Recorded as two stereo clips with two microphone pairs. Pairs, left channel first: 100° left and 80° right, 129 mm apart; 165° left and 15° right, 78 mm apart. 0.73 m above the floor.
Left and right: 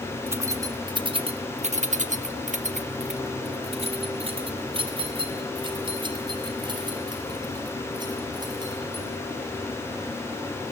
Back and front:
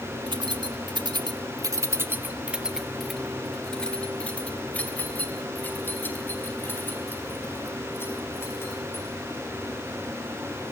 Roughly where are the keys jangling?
Ahead.